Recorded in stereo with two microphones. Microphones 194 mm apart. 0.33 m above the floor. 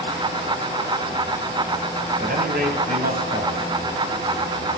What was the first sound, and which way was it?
A man speaking, 55° right (ahead or behind).